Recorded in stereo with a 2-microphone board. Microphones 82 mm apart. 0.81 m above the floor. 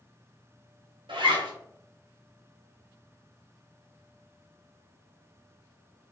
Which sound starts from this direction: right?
A zipper, at 1.1 s.